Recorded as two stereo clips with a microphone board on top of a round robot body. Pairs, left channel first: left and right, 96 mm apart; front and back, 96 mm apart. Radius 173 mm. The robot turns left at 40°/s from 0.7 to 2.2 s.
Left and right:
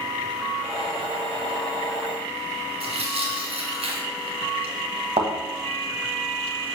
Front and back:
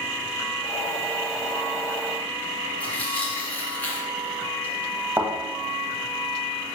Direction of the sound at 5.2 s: 115° right.